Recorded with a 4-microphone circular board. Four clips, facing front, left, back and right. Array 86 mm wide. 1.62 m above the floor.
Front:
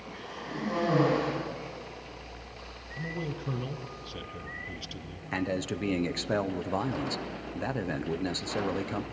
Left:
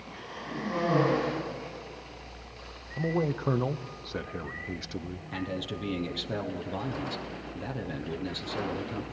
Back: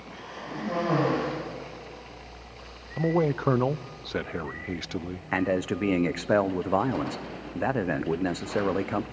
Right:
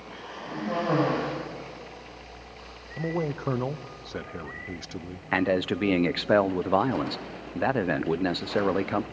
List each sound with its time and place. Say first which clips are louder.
0.1 s a cough: right 2 dB, back 1 dB; 120° right, 8 m
3.0 s a man speaking: even, back 12 dB; 175° right, 0.6 m
5.3 s a man speaking: right 11 dB, back 5 dB; 120° right, 0.6 m